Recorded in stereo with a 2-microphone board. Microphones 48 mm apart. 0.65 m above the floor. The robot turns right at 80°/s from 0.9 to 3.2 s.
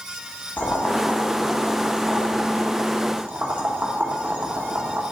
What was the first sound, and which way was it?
Boiling, 40° left (ahead or behind).